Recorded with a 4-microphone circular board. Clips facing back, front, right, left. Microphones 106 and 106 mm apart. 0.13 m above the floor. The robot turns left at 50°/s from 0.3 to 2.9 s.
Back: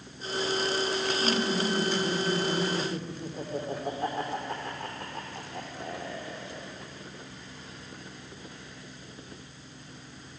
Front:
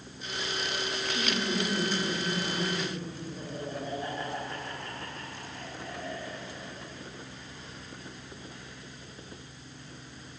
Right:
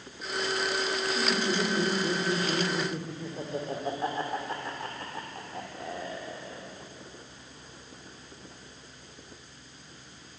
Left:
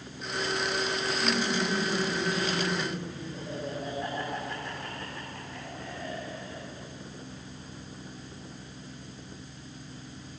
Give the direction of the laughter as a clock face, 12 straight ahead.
2 o'clock.